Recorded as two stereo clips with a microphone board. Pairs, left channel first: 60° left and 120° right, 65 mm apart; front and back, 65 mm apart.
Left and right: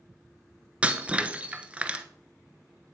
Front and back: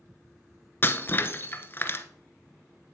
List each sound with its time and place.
0.8 s breaking glass: 50° right, 1.0 m